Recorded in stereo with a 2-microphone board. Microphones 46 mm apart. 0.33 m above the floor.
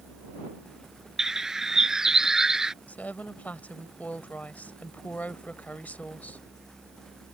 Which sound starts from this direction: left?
A woman speaking, at 2.9 s.